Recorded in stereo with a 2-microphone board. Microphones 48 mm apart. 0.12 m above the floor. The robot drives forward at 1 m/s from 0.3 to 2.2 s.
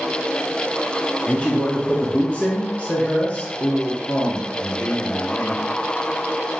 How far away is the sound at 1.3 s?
About 1.8 m.